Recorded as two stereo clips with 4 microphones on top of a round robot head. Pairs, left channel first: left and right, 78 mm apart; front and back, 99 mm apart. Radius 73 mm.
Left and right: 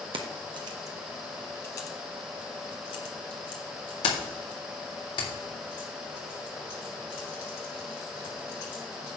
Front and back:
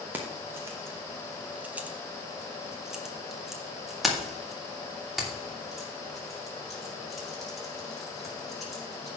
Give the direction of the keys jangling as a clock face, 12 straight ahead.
3 o'clock.